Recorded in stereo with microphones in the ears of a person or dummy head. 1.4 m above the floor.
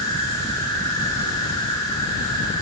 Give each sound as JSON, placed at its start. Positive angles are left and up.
{"t": 0.0, "sound": "an insect", "side_deg": 15, "distance_m": 4.0}